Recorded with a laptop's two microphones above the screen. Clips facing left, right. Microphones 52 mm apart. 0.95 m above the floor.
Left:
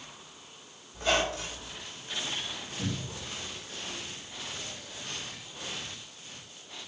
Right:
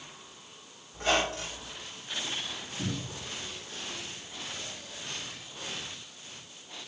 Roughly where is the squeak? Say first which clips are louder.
Even; right.